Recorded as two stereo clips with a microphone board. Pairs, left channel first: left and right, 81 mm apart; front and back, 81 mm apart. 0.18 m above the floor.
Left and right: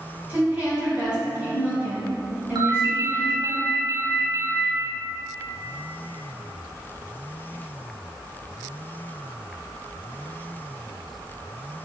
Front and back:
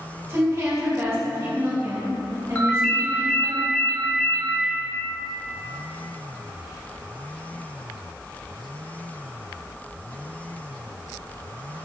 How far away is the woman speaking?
About 1.7 m.